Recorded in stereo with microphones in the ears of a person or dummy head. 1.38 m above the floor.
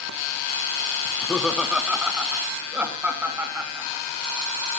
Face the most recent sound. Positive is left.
turn(degrees=-5)  # may be behind; listen again after turning